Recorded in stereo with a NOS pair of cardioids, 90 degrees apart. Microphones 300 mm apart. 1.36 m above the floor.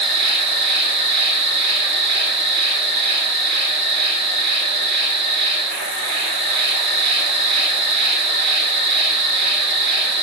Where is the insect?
35° right, 0.9 m.